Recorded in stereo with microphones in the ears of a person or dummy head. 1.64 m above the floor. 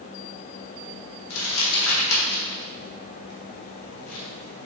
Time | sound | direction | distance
1.3 | crumpling | 80° left | 1.4 m